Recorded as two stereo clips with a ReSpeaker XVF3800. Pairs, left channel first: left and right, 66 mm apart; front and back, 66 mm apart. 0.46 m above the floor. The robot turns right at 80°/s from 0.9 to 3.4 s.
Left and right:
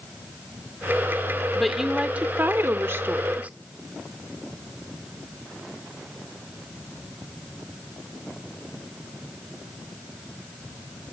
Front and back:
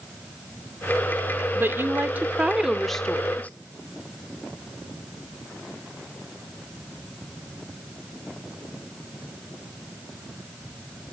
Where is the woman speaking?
170° left, 0.8 m; by 3.5 s 45° right, 0.8 m.